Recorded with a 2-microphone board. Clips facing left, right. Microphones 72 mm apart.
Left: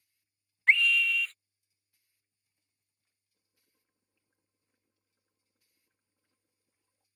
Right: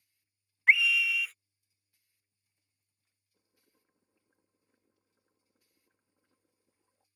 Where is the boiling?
25° right (ahead or behind).